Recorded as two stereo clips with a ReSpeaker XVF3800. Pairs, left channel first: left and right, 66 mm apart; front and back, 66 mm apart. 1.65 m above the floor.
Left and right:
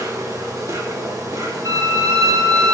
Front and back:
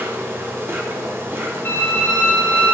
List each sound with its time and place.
0.0 s an insect: 125° right, 2 m
1.6 s a violin: 60° right, 2.5 m